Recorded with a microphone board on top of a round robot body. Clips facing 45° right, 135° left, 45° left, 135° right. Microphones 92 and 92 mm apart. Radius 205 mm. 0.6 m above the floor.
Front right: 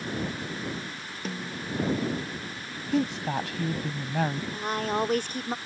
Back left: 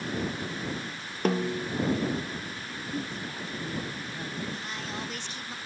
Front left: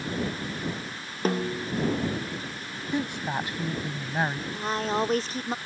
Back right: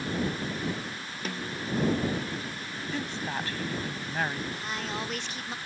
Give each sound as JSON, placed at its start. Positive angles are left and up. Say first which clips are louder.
{"t": 1.2, "sound": "a snare drum", "louder": "back left 9 dB, front left 9 dB", "azimuth_deg": 100}
{"t": 2.9, "sound": "a woman speaking", "louder": "front right 11 dB, front left 5 dB", "azimuth_deg": -30}
{"t": 4.5, "sound": "a woman speaking", "louder": "front right 8 dB, front left 7 dB", "azimuth_deg": -5}